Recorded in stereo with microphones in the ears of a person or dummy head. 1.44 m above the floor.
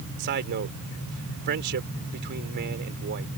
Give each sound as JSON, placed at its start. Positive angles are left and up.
{"t": 0.2, "sound": "a man speaking", "side_deg": -55}